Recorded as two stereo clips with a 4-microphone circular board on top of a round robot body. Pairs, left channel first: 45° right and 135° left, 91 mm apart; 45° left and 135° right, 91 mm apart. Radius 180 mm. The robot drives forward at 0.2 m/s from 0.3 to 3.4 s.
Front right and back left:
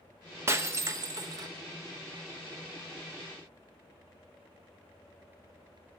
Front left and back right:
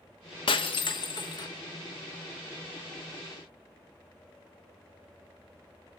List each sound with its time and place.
0.5 s breaking glass: 70° left, 0.9 m; by 1.5 s 85° left, 0.9 m